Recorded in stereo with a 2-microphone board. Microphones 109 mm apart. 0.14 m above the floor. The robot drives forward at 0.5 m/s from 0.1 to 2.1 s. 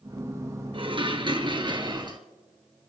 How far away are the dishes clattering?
About 1.7 m.